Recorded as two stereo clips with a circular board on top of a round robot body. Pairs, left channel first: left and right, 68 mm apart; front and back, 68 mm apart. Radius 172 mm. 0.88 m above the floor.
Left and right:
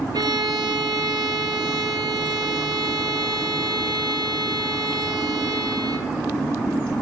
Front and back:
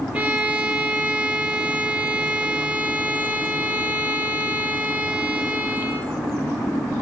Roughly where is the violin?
Right.